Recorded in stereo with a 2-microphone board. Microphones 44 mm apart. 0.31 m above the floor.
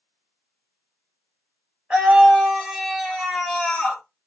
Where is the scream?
20° right (ahead or behind), 1.6 m; by 4.0 s 10° left (ahead or behind), 1.9 m.